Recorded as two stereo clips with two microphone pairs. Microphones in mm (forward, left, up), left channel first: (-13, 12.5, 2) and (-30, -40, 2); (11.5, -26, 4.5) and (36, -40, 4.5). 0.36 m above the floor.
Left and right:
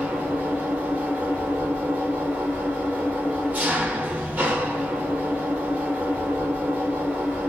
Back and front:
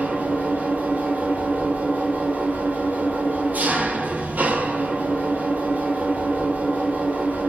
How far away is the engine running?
About 6 m.